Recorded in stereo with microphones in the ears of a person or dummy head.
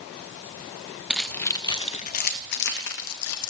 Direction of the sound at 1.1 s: Centre (ahead or behind).